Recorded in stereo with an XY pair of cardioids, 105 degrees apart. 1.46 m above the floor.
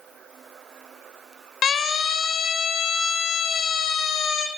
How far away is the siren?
About 5.5 m.